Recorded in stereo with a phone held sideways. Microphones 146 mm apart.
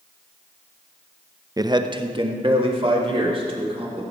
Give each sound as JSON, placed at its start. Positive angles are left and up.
{"t": 1.6, "sound": "a man speaking", "side_deg": -25, "distance_m": 0.5}